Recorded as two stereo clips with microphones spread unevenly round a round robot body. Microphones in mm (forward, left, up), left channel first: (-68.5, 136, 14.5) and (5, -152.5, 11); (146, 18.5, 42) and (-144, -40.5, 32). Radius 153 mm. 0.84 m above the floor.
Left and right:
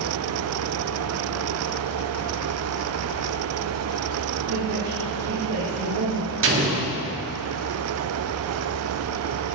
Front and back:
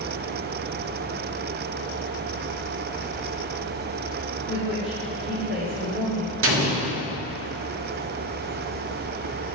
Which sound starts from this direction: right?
A woman speaking, at 4.5 s.